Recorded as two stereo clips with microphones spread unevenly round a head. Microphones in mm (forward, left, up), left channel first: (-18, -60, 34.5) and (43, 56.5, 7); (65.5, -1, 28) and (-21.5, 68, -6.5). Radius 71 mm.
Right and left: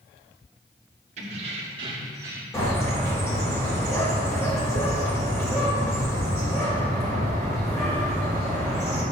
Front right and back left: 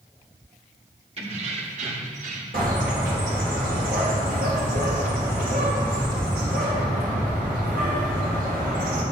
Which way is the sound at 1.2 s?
105° left.